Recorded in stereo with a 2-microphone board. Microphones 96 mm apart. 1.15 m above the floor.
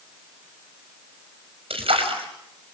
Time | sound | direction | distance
1.7 | a splash | 85° right | 5.5 m